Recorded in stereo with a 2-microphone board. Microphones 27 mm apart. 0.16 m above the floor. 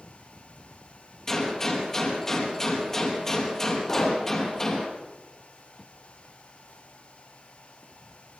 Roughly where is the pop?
Centre.